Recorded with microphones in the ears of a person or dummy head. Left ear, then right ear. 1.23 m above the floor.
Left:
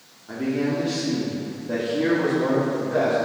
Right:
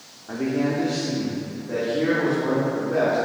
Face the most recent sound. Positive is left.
turn(degrees=45)  # may be behind; listen again after turning